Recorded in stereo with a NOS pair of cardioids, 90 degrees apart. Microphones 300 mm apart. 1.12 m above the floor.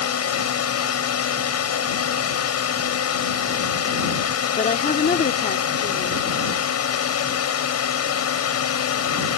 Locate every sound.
0.0 s a drone: 55° left
4.6 s a woman speaking: 30° left